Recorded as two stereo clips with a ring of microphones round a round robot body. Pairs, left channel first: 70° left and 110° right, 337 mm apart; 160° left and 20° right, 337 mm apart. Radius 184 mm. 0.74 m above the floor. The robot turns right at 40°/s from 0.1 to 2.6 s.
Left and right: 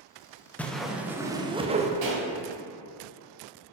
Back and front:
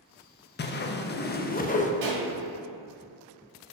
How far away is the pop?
About 1.9 m.